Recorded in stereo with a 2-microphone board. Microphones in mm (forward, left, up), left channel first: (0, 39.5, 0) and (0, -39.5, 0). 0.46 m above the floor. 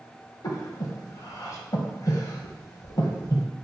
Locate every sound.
0.4 s breathing: 55° left (ahead or behind), 1.1 m